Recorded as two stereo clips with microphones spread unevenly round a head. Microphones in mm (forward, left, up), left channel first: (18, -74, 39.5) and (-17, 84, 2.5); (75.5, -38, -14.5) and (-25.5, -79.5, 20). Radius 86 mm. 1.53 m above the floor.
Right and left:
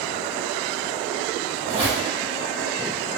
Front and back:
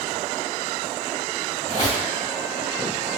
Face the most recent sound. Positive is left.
turn(degrees=55)